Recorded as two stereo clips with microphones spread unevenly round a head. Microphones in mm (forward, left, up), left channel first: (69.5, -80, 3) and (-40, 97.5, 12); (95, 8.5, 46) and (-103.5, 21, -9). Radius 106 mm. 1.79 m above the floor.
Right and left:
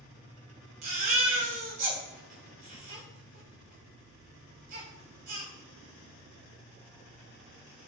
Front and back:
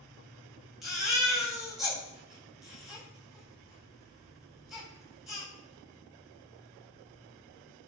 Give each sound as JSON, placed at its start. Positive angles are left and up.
{"t": 0.8, "sound": "a baby crying", "azimuth_deg": 80, "distance_m": 3.0}